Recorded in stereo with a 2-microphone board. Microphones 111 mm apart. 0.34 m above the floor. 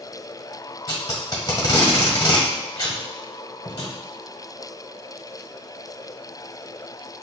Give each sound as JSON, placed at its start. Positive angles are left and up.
{"t": 0.9, "sound": "tape being pulled", "side_deg": 40, "distance_m": 1.3}